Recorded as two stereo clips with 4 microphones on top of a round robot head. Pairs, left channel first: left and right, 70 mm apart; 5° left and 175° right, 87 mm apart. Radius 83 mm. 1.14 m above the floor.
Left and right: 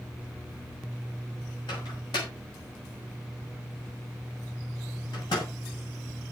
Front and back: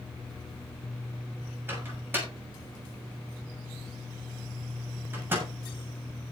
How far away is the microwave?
About 6.5 m.